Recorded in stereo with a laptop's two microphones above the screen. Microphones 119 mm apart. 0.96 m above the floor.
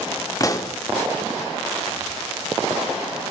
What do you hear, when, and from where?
0.4 s a pop: 30° left (ahead or behind), 0.6 m